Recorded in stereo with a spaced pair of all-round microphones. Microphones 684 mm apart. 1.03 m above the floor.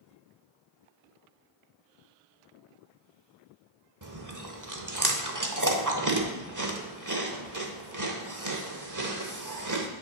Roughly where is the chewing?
Right.